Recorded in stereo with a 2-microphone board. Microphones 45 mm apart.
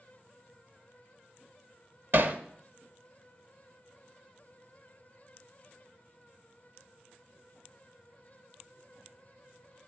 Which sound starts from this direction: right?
Hammering, at 2.1 s.